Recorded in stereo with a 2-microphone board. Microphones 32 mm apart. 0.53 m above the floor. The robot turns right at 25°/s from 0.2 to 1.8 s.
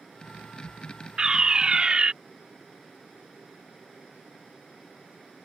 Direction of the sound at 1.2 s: 30° right (ahead or behind).